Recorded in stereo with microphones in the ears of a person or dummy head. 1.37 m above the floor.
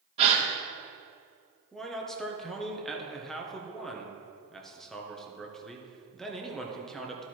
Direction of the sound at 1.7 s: Centre (ahead or behind).